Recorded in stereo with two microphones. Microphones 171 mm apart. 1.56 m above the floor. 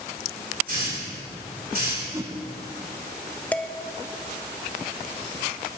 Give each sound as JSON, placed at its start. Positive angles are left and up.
{"t": 0.7, "sound": "a hiss", "side_deg": -60, "distance_m": 4.0}
{"t": 2.1, "sound": "a whoosh", "side_deg": -15, "distance_m": 0.6}
{"t": 3.5, "sound": "dishes clattering", "side_deg": 10, "distance_m": 0.6}